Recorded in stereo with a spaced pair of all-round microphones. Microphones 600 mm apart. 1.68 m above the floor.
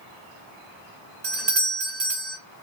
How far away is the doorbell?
About 0.7 m.